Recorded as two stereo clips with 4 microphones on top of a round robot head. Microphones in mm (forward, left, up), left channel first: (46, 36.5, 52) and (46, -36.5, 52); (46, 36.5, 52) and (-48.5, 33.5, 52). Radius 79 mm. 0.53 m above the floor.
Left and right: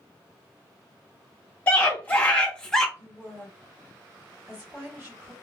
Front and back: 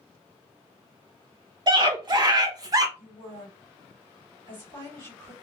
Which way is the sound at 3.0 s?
150° right.